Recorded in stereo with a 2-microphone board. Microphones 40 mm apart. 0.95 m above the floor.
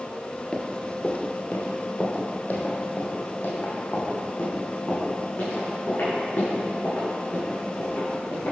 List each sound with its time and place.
0.5 s running footsteps: 30° left (ahead or behind), 1.2 m; by 8.5 s 65° left (ahead or behind), 6 m